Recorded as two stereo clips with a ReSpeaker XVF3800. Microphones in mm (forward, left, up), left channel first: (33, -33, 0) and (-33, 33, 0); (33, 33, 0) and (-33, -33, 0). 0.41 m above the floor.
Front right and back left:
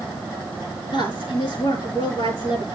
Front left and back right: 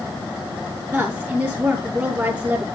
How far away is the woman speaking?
About 5 m.